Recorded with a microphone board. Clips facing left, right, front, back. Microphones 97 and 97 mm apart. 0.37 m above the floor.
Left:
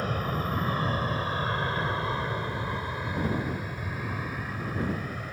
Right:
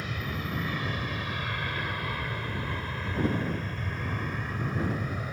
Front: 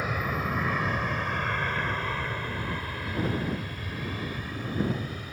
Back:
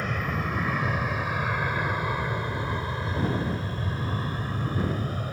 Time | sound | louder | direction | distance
0.0 | an aircraft | left 5 dB, even | 80° left | ?